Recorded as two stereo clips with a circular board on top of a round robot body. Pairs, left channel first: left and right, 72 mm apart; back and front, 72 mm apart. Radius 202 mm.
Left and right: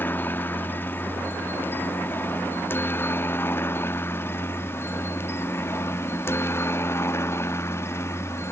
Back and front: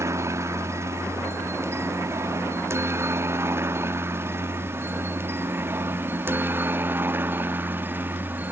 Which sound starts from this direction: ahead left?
A helicopter, at 0.0 s.